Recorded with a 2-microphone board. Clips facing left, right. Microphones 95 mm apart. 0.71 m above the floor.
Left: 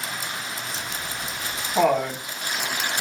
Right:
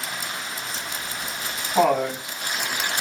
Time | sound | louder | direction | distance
0.7 | laughter | even | 15° right (ahead or behind) | 2 m